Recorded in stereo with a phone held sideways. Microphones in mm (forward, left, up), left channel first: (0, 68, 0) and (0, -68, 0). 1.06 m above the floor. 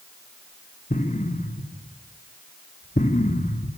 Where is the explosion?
65° left (ahead or behind), 2 m.